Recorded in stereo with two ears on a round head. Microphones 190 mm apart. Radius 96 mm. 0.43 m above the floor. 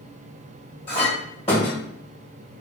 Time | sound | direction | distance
0.9 | a clink | 30° left (ahead or behind) | 1.7 m